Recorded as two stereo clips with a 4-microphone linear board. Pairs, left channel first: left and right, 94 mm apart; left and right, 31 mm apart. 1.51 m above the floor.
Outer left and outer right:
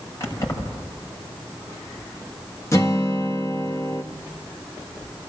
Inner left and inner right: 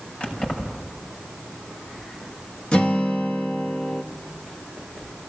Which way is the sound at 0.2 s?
30° left (ahead or behind).